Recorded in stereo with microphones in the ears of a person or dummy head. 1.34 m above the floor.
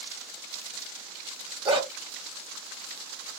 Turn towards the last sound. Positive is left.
turn(degrees=-30)  # may be behind; listen again after turning